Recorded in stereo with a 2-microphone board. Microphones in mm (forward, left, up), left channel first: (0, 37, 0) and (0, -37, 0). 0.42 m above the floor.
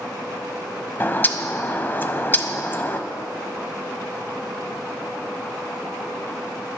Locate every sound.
1.0 s a bird: 30° left (ahead or behind), 0.9 m